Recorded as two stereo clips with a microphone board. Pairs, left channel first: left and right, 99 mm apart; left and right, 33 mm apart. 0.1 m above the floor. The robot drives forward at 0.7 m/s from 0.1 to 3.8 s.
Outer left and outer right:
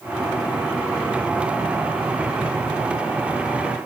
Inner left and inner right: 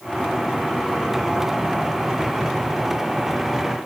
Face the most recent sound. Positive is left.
No sound to turn to.